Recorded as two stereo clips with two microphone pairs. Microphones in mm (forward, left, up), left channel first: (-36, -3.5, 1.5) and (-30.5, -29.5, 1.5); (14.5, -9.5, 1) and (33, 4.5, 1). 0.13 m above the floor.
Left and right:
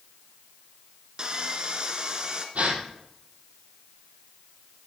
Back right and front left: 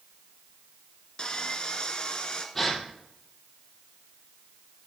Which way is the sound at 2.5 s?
60° right.